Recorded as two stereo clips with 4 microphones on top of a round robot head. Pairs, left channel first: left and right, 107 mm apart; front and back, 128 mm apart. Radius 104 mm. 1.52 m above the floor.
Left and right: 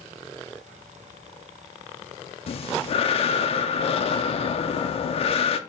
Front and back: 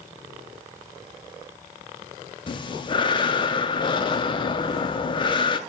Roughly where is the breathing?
Ahead left.